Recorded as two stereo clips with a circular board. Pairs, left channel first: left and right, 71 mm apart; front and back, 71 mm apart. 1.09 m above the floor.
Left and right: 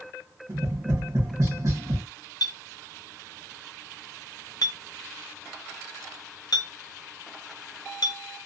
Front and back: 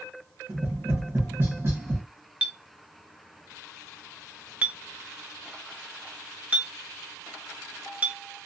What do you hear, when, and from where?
0.5 s tapping: 125° right, 1.7 m
2.4 s a clink: 110° left, 0.5 m